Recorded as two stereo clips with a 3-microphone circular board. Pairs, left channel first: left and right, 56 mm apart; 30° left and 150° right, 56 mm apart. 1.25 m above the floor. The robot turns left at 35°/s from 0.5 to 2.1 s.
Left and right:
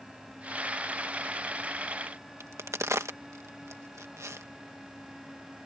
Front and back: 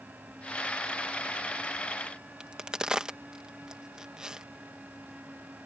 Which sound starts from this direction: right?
A crack, at 2.4 s.